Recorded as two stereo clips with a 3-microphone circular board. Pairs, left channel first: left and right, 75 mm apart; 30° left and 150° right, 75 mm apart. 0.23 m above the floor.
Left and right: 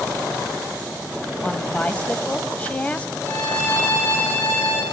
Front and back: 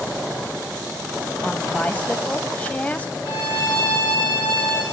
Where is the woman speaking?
55° left, 1.0 m.